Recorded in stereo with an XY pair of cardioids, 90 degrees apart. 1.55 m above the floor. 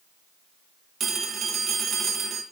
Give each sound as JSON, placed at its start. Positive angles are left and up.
{"t": 1.0, "sound": "a phone ringing", "azimuth_deg": -55, "distance_m": 1.4}